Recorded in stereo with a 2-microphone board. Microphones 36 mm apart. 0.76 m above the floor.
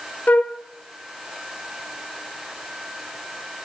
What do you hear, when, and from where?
0.3 s a flute: 45° left (ahead or behind), 1.0 m